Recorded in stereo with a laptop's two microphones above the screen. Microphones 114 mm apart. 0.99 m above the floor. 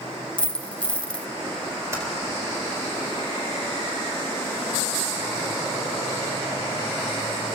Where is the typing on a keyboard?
25° right (ahead or behind), 4 m.